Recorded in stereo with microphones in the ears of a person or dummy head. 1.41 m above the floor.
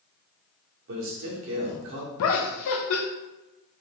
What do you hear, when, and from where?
0.9 s a man speaking: 65° right (ahead or behind), 1.0 m
2.2 s laughter: 70° left (ahead or behind), 0.5 m